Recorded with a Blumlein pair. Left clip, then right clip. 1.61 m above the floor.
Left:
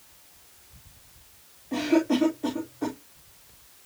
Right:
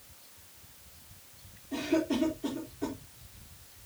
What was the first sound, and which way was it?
A cough, 60° left.